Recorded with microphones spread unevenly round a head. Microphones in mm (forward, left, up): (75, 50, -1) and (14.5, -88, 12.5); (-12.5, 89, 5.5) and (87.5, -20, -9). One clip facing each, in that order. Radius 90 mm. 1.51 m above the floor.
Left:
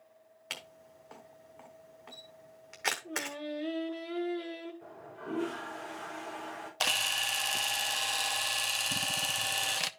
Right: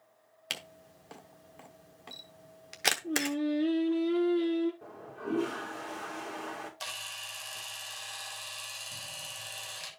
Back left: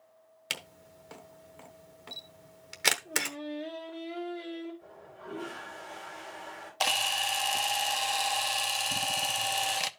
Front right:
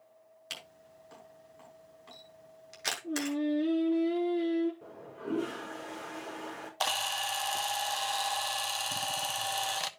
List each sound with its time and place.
0.5 s a camera shutter: straight behind, 0.9 m
3.0 s singing: 75° right, 3.5 m
4.8 s a toilet flushing: 65° right, 4 m
6.8 s a camera shutter: 60° left, 0.6 m